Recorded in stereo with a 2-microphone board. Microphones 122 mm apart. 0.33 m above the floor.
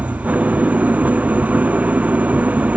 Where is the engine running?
10° right (ahead or behind).